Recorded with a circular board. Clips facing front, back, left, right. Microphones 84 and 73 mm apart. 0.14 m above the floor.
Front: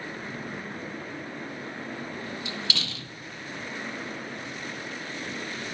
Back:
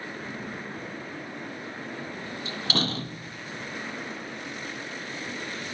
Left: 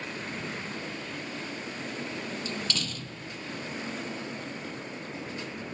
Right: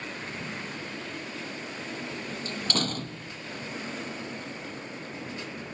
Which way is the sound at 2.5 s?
130° right.